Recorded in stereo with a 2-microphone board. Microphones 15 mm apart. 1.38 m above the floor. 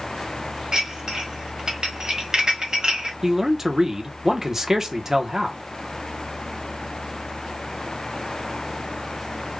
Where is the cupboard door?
No cupboard door in this recording.